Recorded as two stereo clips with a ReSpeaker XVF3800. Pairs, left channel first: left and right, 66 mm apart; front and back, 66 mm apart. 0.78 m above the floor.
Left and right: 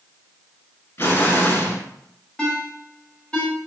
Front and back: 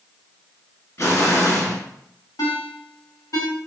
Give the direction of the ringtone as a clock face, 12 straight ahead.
12 o'clock.